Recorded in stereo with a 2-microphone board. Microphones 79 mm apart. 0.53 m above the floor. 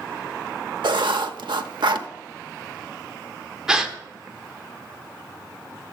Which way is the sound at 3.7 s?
10° right (ahead or behind).